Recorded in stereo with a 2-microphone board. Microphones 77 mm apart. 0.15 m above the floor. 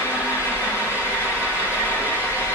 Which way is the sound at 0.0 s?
25° right (ahead or behind).